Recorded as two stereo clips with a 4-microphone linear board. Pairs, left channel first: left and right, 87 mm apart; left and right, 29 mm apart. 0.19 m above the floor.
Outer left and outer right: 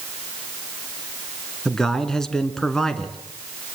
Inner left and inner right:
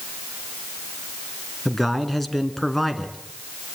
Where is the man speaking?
5° left (ahead or behind), 2 m.